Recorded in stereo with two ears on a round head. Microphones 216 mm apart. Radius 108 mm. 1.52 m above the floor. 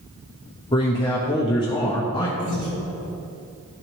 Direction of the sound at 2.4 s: 35° right (ahead or behind).